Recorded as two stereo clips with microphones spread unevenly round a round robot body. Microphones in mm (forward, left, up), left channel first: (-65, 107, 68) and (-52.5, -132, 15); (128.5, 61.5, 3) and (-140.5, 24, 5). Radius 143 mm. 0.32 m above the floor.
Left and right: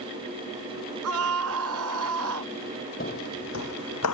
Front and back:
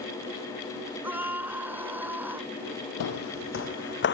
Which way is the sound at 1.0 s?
90° right.